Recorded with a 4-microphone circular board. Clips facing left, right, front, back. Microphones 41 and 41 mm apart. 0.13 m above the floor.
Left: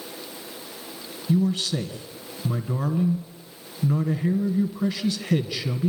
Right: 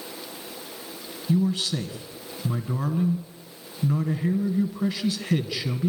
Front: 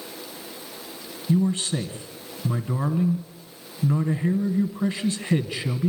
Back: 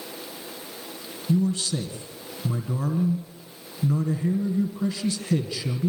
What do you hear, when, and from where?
1.3 s a man speaking: 5° right, 1.6 m